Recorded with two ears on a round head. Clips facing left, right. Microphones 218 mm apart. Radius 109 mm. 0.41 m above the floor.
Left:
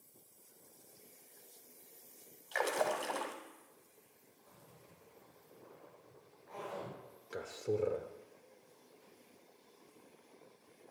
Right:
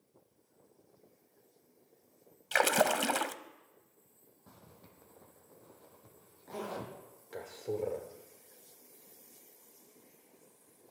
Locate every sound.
2.5 s a splash: 75° right (ahead or behind), 0.8 m
4.5 s a zipper: 60° right (ahead or behind), 3 m
7.3 s a man speaking: 15° left (ahead or behind), 1.1 m